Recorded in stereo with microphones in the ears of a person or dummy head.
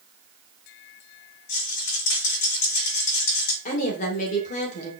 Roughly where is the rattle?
Left.